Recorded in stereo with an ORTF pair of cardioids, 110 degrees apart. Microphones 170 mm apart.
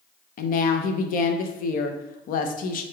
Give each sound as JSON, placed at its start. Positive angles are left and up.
{"t": 0.4, "sound": "a woman speaking", "azimuth_deg": 55, "distance_m": 0.6}